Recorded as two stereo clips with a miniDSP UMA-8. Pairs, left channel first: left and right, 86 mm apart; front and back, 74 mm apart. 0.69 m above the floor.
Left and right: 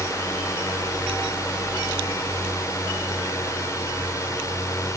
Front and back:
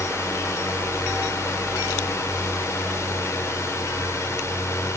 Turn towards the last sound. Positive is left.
turn(degrees=45)